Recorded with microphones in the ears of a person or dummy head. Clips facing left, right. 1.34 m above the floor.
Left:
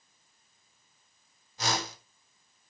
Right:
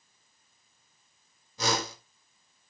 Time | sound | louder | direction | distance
1.6 | a whoosh | right 3 dB | 85° right | 4 m